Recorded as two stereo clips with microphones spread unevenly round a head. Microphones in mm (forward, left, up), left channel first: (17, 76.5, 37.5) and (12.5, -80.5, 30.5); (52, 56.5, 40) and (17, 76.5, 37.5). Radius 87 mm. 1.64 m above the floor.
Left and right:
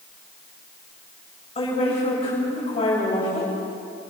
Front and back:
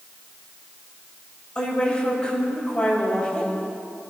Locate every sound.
1.6 s a woman speaking: 35° left, 10 m